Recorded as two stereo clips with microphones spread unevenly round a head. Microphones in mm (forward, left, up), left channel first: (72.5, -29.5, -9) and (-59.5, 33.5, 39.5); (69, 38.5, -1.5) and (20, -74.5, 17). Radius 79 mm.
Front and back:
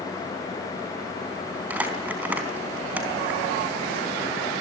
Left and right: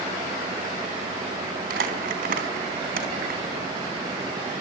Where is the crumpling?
130° right, 4 m.